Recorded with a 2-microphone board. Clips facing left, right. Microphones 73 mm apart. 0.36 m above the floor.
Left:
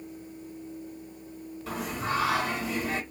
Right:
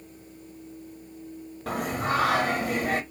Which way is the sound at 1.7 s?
55° right (ahead or behind).